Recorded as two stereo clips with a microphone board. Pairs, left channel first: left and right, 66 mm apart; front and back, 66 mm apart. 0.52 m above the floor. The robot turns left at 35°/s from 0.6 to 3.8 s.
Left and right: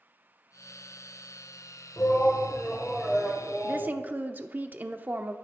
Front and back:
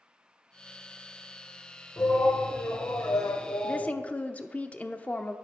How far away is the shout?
About 2.5 m.